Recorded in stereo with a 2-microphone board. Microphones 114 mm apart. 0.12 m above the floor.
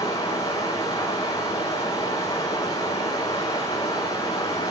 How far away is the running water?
About 4 m.